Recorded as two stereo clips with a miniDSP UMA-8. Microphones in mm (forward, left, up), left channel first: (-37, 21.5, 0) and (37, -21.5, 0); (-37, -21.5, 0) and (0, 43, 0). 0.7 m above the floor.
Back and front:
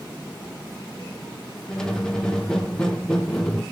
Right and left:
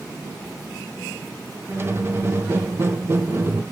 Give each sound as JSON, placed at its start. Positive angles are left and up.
{"t": 1.7, "sound": "a squeak", "azimuth_deg": 75, "distance_m": 0.8}